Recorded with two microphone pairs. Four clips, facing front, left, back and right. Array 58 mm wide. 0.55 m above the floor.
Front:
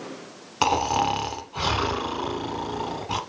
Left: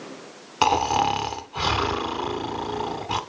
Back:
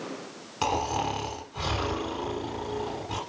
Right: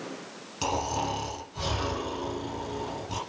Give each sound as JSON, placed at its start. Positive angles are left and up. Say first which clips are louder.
{"t": 0.6, "sound": "snoring", "louder": "left 9 dB, front 6 dB", "azimuth_deg": 65, "distance_m": 1.2}